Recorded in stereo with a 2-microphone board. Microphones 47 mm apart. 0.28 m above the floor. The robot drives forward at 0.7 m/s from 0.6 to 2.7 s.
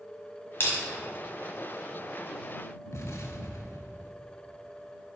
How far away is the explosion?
About 0.7 m.